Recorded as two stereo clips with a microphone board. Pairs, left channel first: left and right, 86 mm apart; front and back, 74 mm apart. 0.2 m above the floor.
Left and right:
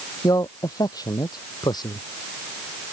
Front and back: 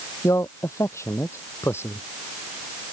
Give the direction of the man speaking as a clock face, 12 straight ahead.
10 o'clock.